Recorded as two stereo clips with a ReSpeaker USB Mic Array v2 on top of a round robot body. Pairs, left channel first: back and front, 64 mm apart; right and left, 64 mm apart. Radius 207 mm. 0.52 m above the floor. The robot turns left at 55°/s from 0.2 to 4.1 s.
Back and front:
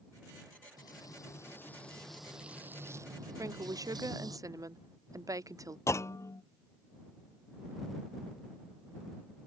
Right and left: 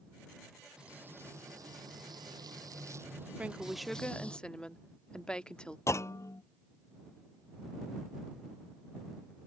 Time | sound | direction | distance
0.8 | frying | 165° left | ?
3.4 | a woman speaking | 25° left | ?
5.9 | a clunk | 135° right | ?